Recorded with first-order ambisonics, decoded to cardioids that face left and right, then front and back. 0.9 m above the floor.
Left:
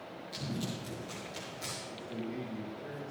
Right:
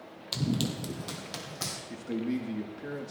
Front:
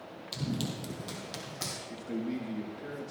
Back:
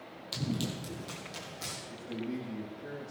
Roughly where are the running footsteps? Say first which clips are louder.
Right 8 dB, back 1 dB; right.